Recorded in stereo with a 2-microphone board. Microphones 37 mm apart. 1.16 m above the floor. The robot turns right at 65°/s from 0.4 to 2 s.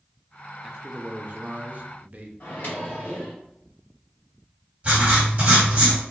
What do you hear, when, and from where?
0.6 s a man speaking: 160° right, 0.6 m; by 2.3 s 70° right, 0.6 m
2.4 s a microwave: 65° left (ahead or behind), 1.8 m
4.8 s writing: 30° right (ahead or behind), 2.0 m